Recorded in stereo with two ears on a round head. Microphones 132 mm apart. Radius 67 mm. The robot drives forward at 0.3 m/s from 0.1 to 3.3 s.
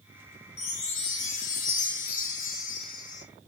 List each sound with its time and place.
0.6 s a chime: 45° left (ahead or behind), 1.3 m; by 3.2 s 60° left (ahead or behind), 1.1 m